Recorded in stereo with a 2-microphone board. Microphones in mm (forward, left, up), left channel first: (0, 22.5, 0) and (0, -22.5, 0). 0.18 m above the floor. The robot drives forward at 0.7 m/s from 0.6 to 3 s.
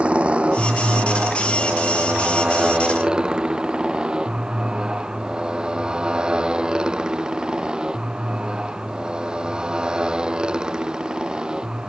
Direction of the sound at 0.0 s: 25° right (ahead or behind).